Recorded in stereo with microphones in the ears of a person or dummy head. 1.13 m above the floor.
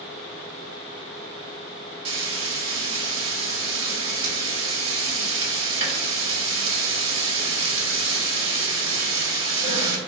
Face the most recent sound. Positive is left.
turn(degrees=-35)  # may be behind; listen again after turning